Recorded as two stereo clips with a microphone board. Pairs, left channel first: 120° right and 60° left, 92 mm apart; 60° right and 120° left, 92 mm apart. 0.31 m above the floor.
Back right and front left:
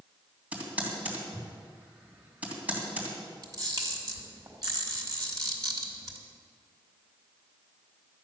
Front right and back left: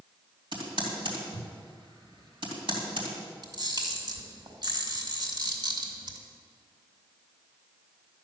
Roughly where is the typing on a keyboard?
Behind left.